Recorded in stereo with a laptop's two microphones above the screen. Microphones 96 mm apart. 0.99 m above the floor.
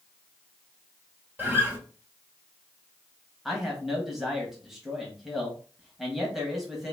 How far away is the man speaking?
About 1.0 m.